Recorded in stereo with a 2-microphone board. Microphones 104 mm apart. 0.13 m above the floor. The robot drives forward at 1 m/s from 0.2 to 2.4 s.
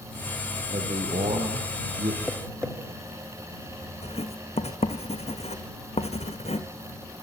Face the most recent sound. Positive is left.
turn(degrees=85)